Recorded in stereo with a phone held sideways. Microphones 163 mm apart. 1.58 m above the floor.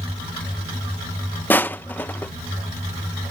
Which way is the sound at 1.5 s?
10° left (ahead or behind).